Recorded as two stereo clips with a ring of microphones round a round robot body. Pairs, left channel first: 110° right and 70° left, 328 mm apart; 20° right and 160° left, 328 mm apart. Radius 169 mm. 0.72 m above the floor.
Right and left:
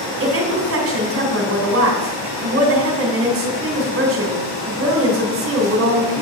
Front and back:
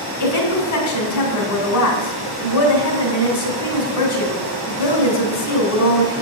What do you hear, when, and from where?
0.2 s a woman speaking: 15° left, 2.5 m